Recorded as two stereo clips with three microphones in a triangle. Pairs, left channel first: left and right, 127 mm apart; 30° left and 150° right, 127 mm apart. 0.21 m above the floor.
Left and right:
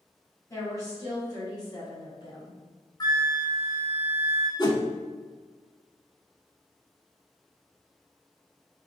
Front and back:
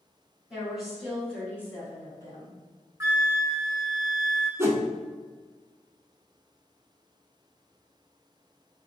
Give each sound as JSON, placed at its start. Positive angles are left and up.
{"t": 0.5, "sound": "a woman speaking", "azimuth_deg": 135, "distance_m": 1.4}
{"t": 3.0, "sound": "a flute", "azimuth_deg": 145, "distance_m": 1.1}
{"t": 4.6, "sound": "a whoosh", "azimuth_deg": 145, "distance_m": 0.6}